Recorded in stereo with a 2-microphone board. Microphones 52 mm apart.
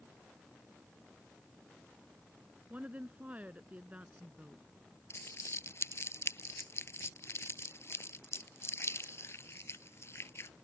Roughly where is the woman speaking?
Right.